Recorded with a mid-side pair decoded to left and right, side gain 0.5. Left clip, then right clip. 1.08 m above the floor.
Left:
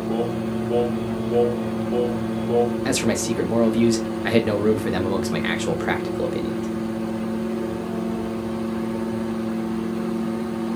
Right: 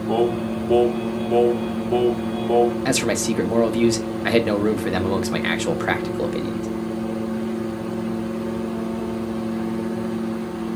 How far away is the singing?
About 1.3 m.